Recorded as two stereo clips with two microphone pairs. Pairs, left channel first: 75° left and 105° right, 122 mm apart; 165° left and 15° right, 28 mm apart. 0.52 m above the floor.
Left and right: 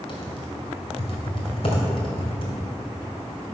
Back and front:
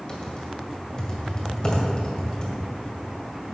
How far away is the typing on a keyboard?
About 2.0 m.